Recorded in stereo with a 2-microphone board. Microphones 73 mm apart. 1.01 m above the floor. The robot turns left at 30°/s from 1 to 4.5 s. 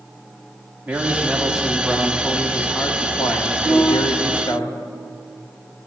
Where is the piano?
65° left (ahead or behind), 5.5 m; by 4.5 s 90° left, 5.5 m.